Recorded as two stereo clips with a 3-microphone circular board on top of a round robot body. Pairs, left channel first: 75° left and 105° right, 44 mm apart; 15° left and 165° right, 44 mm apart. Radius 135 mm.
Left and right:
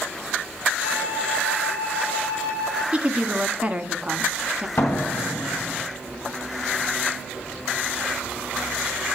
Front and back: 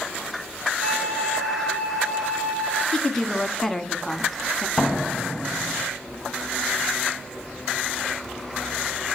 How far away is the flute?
About 4 m.